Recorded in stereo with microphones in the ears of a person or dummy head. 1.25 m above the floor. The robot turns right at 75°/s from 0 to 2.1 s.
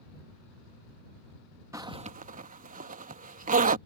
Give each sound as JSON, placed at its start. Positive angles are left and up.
{"t": 1.7, "sound": "a zipper", "side_deg": -15}